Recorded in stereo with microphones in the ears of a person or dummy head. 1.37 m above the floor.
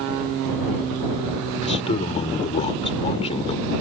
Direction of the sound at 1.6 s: 35° left (ahead or behind).